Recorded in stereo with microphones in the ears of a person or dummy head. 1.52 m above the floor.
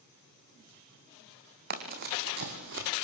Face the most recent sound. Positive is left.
turn(degrees=-50)  # may be behind; listen again after turning